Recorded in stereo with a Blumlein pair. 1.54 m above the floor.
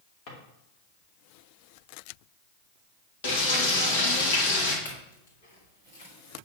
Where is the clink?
60° left, 3 m.